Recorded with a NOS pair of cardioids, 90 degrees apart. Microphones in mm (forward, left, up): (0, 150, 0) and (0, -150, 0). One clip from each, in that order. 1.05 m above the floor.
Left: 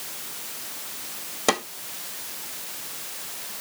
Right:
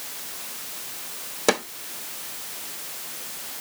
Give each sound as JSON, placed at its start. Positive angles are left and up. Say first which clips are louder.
{"t": 1.5, "sound": "a snare drum", "louder": "right 1 dB", "azimuth_deg": 0, "distance_m": 1.7}